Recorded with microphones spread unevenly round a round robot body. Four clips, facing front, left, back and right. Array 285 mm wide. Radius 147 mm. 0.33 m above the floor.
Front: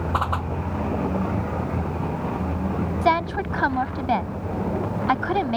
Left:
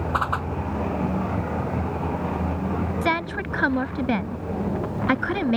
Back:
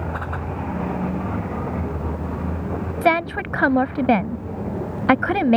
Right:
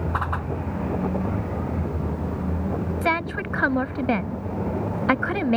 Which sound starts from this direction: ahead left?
A whoosh, at 0.1 s.